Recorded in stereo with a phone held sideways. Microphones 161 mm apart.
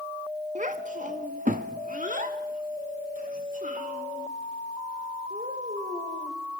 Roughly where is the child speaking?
Right.